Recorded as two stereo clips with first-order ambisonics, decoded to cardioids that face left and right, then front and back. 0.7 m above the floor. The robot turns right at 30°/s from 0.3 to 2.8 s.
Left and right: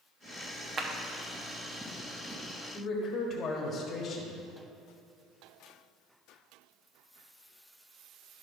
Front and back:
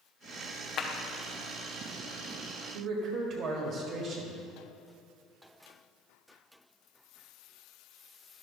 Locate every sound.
0.8 s a clap: 40° right, 0.8 m; by 0.9 s 35° right, 0.8 m
2.7 s a man speaking: 145° left, 1.5 m